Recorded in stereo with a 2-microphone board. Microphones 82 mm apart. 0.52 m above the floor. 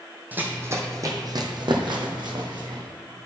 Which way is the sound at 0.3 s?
20° right (ahead or behind).